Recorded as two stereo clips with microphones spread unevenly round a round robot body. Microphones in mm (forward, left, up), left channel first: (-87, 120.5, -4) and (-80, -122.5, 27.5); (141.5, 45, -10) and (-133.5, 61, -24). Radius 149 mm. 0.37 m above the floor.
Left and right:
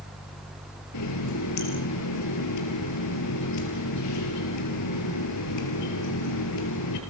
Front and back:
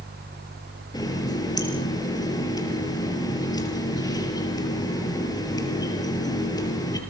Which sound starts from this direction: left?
A running tap, at 0.9 s.